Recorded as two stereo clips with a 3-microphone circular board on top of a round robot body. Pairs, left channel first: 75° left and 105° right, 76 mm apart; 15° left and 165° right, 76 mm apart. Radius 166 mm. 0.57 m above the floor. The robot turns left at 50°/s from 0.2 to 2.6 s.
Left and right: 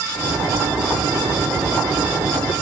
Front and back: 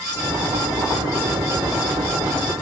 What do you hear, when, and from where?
Only background noise.